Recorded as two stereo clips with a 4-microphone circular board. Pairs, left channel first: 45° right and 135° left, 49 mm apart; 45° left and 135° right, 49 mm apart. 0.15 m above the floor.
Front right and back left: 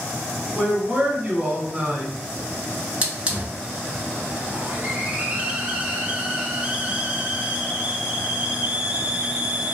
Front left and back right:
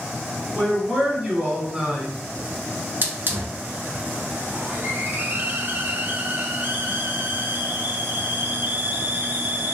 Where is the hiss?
165° right, 0.6 m.